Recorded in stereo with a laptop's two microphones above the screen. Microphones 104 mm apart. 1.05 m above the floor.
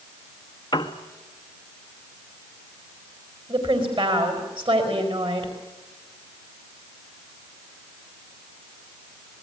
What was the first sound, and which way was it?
A piano, 45° left (ahead or behind).